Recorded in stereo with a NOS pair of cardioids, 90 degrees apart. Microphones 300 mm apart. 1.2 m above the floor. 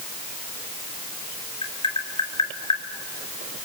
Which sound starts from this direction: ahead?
Tapping, at 1.6 s.